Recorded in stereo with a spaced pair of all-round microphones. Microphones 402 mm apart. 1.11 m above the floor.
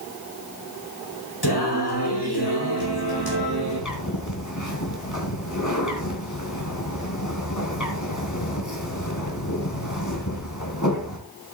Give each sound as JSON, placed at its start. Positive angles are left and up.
{"t": 1.4, "sound": "singing", "side_deg": 75, "distance_m": 5.0}
{"t": 2.8, "sound": "a bird", "side_deg": 45, "distance_m": 3.0}